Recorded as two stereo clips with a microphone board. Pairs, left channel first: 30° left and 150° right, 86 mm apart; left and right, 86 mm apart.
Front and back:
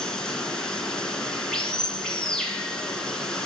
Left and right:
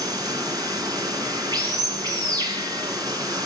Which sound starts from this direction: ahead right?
Running water, at 0.0 s.